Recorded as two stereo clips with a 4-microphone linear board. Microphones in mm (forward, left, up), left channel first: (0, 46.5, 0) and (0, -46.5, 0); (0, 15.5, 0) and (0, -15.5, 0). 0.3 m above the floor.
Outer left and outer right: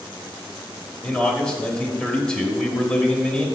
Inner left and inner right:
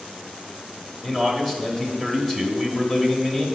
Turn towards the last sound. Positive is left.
turn(degrees=10)  # may be behind; listen again after turning